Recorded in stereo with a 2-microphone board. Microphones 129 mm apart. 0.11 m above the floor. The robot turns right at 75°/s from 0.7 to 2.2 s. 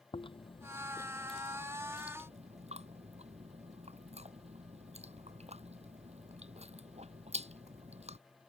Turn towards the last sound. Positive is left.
turn(degrees=-55)  # may be behind; listen again after turning